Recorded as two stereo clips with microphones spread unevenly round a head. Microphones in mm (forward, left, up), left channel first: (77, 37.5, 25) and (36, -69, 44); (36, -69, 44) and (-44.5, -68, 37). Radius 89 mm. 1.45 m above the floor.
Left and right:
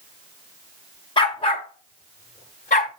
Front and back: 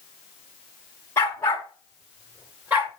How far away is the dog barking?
About 1.2 m.